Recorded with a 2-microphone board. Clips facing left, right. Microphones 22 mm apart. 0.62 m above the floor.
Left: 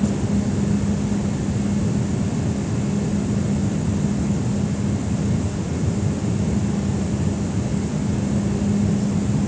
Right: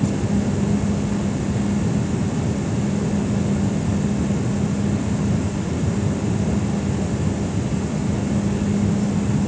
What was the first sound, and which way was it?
Only background noise.